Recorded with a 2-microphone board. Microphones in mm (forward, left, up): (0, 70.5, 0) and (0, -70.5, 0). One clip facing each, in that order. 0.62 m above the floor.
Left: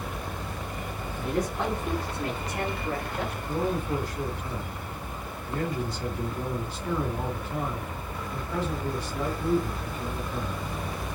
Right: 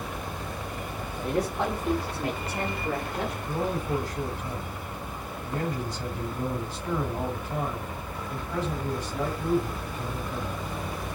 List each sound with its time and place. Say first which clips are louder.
1.2 s a man speaking: right 1 dB; 35° right (ahead or behind), 3.5 m; by 3.4 s 25° right (ahead or behind), 2.5 m
3.5 s a man speaking: left 2 dB; 45° right (ahead or behind), 4.5 m